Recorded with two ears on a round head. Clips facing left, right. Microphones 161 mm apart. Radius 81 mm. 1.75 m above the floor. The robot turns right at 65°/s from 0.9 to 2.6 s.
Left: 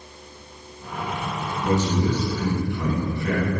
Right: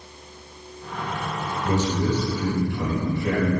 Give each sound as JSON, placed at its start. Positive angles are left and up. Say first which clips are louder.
{"t": 1.6, "sound": "a man speaking", "louder": "left 1 dB", "azimuth_deg": 135, "distance_m": 3.0}